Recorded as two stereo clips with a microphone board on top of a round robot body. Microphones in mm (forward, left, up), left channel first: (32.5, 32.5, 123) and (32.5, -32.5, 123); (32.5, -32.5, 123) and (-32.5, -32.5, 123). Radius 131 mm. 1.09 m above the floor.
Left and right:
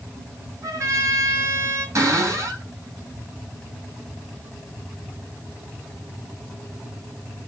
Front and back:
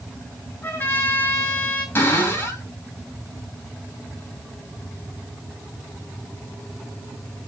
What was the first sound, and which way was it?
A trumpet, 55° right.